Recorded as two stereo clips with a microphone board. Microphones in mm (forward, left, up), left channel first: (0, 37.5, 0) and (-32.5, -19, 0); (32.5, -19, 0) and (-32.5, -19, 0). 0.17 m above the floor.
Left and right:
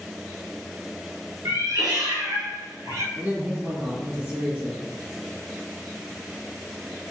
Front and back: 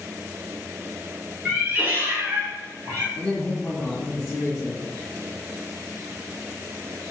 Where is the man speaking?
85° right, 1.5 m.